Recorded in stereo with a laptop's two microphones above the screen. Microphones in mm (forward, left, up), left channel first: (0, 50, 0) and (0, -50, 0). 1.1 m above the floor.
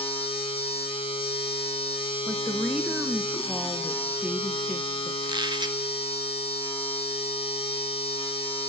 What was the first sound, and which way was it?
A machine running, 75° left (ahead or behind).